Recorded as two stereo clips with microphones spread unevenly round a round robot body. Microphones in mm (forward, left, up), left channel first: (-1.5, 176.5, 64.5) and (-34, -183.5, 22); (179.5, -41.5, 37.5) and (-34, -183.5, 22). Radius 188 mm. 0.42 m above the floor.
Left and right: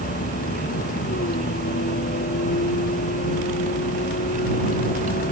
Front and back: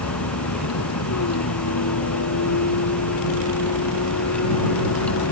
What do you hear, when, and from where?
0.0 s a vehicle: 15° left